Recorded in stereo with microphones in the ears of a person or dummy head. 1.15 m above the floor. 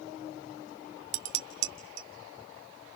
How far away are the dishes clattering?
About 1.8 m.